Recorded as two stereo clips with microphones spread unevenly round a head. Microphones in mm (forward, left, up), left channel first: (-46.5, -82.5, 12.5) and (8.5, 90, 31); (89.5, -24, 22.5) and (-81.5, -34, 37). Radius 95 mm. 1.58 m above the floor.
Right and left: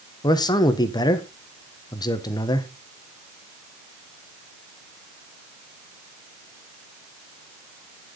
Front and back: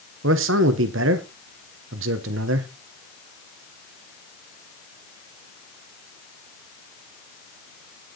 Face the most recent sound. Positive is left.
turn(degrees=180)